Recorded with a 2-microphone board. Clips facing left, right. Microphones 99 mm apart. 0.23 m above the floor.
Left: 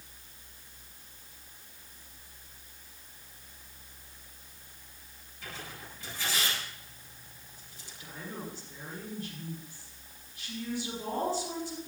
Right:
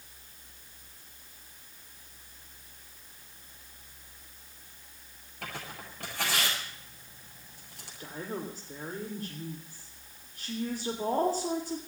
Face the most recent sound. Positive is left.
turn(degrees=-45)  # may be behind; listen again after turning